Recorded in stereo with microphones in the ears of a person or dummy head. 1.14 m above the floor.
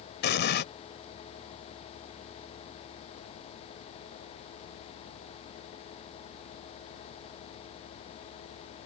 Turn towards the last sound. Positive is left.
turn(degrees=55)  # may be behind; listen again after turning